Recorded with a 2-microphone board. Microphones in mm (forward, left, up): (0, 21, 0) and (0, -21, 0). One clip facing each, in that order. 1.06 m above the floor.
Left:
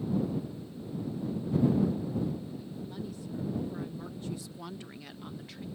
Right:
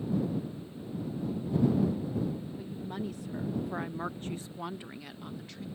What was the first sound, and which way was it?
A woman speaking, 55° right (ahead or behind).